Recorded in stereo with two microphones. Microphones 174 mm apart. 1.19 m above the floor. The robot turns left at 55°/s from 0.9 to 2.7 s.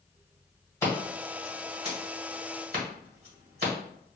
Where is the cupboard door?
I don't hear a cupboard door.